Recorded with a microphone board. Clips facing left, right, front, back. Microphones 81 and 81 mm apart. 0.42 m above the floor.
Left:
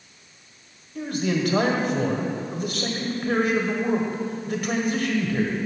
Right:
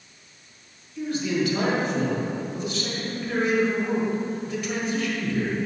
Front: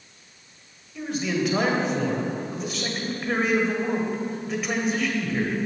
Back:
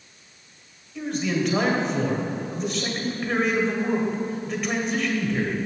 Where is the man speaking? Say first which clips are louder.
Even, back 1 dB; 85° left, 1.5 m.